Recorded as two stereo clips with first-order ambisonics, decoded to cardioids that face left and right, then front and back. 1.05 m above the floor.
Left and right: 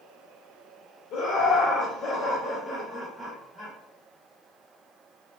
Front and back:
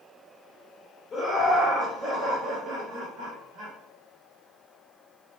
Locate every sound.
1.1 s laughter: 70° left, 0.7 m; by 3.7 s 170° right, 1.1 m